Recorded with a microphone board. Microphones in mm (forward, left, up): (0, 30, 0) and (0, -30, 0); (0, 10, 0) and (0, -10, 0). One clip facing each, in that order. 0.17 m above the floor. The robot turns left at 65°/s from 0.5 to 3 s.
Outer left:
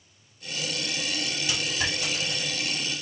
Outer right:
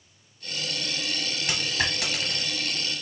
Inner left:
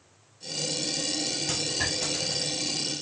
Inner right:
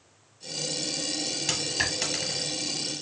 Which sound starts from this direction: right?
A dropped coin, at 1.5 s.